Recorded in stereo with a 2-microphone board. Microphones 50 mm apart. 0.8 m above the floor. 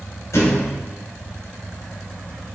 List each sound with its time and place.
0.3 s a thud: 80° left, 1.6 m